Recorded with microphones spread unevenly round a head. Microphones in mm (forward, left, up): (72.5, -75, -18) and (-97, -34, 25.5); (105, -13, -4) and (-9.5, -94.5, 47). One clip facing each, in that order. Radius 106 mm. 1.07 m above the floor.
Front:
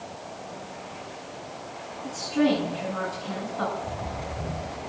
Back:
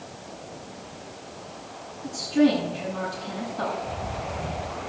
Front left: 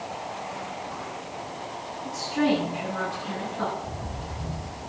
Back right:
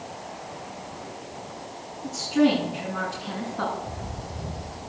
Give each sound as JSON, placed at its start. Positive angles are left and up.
{"t": 2.0, "sound": "a woman speaking", "azimuth_deg": -115, "distance_m": 9.0}
{"t": 3.8, "sound": "a bird", "azimuth_deg": -110, "distance_m": 6.0}